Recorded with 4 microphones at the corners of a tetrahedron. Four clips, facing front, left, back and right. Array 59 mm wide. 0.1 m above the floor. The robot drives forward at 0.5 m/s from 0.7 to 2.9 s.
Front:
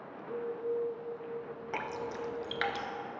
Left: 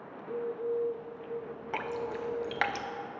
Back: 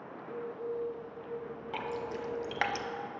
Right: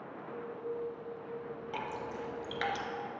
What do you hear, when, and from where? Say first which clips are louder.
0.1 s a bird: left 9 dB, front 3 dB; 60° left, 0.8 m; by 2.7 s 135° left, 1.0 m
1.7 s dripping: left 6 dB, even; 55° left, 0.6 m; by 2.9 s 130° left, 0.6 m